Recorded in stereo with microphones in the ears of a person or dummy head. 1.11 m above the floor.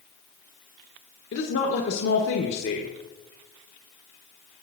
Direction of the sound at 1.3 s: 60° left (ahead or behind).